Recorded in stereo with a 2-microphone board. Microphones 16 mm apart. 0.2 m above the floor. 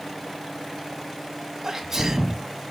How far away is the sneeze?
About 1.5 m.